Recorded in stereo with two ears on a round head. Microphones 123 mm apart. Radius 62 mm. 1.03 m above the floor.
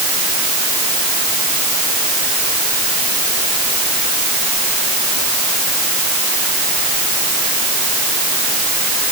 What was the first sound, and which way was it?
Only background noise.